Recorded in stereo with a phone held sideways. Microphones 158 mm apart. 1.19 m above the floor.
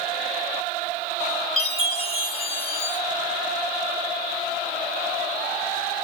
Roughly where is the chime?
Left.